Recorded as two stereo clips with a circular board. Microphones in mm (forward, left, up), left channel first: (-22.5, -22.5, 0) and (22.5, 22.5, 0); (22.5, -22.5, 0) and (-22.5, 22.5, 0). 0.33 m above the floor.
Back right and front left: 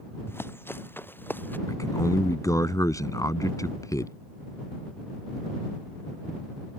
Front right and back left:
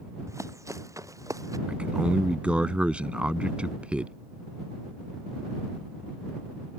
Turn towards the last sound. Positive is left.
turn(degrees=-155)